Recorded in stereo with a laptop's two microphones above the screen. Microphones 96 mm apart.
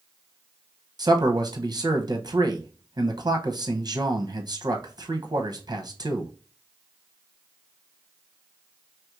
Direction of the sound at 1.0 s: 45° right (ahead or behind).